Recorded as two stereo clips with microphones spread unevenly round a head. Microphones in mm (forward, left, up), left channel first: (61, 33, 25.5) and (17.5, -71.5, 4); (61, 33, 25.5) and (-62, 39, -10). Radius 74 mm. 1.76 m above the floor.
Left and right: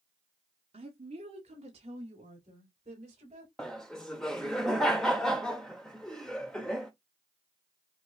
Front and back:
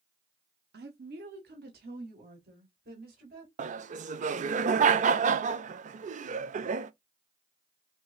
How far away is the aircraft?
I don't hear an aircraft.